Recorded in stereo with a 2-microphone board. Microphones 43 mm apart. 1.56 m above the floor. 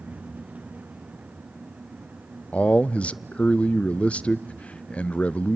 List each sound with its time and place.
2.5 s a man speaking: 30° left (ahead or behind), 0.5 m